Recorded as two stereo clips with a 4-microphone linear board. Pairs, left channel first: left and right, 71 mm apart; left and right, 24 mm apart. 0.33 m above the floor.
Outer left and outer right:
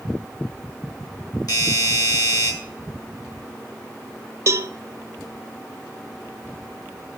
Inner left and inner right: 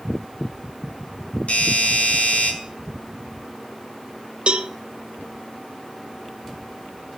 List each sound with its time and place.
1.5 s a doorbell: 70° left (ahead or behind), 6 m
4.5 s a cowbell: 45° right (ahead or behind), 0.5 m